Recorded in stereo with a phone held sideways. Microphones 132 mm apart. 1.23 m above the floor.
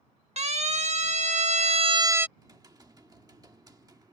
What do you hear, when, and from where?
0.4 s a siren: 55° right (ahead or behind); by 2.3 s 15° right (ahead or behind)
2.4 s typing on a keyboard: 30° right (ahead or behind)